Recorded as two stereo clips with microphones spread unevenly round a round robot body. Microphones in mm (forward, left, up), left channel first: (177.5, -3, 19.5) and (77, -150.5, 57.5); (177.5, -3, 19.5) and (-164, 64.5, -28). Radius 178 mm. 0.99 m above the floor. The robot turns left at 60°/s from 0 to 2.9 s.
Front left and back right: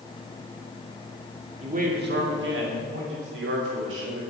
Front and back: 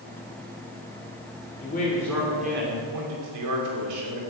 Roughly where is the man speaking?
Right.